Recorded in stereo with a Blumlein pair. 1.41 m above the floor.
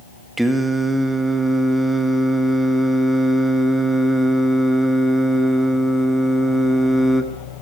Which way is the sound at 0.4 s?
5° right.